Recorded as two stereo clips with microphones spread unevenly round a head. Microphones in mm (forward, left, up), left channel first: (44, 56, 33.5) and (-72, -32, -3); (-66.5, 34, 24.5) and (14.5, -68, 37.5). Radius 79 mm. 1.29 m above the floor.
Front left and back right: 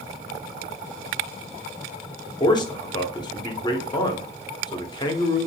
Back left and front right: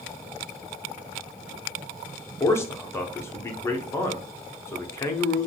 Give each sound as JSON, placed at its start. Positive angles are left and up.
{"t": 2.4, "sound": "a man speaking", "azimuth_deg": 95, "distance_m": 0.6}